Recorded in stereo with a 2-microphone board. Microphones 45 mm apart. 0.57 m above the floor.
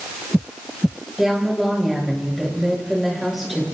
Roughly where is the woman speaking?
Centre.